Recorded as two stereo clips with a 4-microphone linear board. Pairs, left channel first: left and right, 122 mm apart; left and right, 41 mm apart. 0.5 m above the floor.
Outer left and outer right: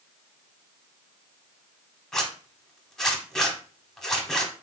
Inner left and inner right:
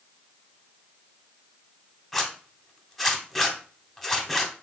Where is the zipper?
5° left (ahead or behind), 0.7 m.